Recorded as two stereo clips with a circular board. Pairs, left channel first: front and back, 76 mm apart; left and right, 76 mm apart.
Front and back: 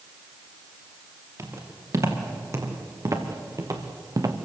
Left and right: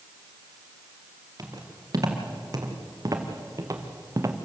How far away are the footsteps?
About 5.5 m.